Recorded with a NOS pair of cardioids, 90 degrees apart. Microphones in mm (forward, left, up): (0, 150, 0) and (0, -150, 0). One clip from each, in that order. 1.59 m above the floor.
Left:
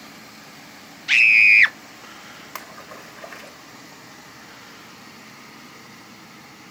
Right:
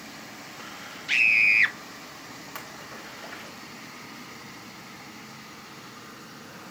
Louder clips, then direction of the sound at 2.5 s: Left 4 dB; 50° left.